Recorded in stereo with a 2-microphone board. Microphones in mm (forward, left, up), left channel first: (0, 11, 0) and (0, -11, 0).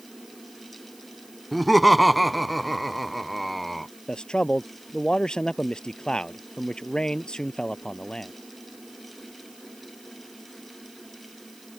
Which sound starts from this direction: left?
A man speaking, at 4.1 s.